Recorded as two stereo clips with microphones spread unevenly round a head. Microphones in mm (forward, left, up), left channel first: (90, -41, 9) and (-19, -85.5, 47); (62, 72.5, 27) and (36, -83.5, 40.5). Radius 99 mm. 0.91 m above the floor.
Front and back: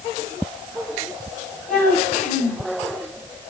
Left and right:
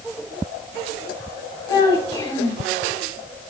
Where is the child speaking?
15° left, 3 m.